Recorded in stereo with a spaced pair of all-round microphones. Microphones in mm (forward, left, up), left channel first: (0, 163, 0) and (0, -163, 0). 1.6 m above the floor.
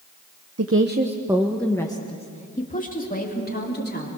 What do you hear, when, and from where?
0.6 s a woman speaking: 55° right (ahead or behind), 0.9 m; by 4.1 s 35° left (ahead or behind), 4 m